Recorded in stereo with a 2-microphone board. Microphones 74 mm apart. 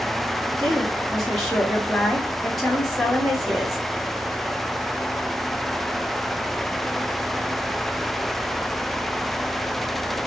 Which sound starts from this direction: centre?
A woman speaking, at 0.6 s.